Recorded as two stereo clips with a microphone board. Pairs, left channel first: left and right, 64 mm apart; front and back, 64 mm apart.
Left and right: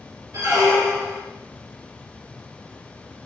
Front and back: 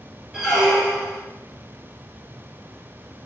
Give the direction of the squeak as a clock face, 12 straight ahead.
3 o'clock.